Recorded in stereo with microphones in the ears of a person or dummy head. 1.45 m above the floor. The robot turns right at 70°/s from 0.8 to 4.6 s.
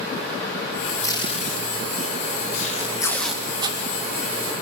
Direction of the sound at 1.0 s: 20° left (ahead or behind).